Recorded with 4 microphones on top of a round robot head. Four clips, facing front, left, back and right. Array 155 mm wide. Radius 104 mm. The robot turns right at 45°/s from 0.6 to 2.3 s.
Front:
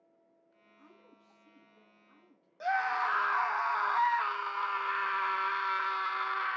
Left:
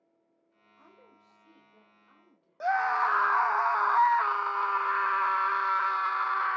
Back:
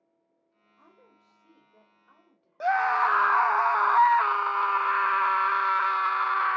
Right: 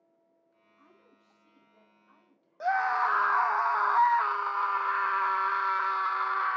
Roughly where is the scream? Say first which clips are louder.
Even, back 7 dB; behind.